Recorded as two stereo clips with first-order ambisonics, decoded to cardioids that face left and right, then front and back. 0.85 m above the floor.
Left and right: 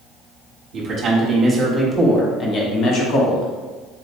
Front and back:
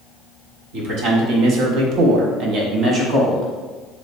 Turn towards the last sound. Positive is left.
turn(degrees=100)